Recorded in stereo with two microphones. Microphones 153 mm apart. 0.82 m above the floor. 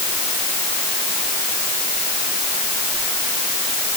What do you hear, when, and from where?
Only background noise.